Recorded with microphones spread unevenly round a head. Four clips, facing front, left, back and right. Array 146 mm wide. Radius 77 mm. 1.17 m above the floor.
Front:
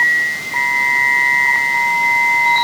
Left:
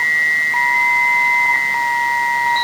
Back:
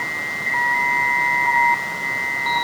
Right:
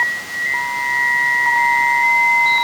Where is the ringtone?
I don't hear a ringtone.